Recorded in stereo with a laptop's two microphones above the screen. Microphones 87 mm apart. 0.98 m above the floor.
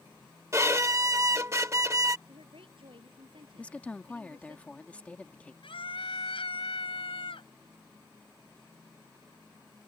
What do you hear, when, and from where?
0.5 s a violin: 35° right (ahead or behind)
2.3 s a woman speaking: 75° right (ahead or behind)
3.6 s a woman speaking: 15° left (ahead or behind)
5.6 s a scream: 80° left